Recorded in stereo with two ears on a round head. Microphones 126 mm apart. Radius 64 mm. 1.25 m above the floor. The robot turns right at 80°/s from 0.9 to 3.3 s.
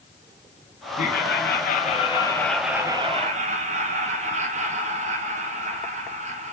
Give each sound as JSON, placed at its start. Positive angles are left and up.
{"t": 1.0, "sound": "laughter", "azimuth_deg": 50, "distance_m": 1.5}